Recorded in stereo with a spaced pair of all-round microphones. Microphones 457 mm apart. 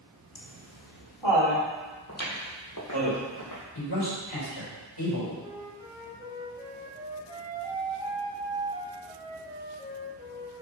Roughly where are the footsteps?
Left.